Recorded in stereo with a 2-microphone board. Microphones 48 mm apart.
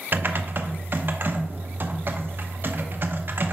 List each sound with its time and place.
0.1 s typing on a keyboard: 45° right (ahead or behind), 0.6 m